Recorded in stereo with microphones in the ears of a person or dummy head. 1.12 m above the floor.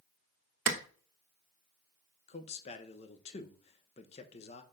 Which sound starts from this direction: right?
A clap, at 0.7 s.